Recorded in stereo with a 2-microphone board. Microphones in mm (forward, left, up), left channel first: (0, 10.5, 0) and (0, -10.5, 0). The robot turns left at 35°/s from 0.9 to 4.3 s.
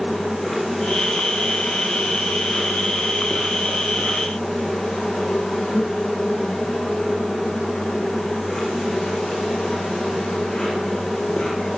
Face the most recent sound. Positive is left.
turn(degrees=40)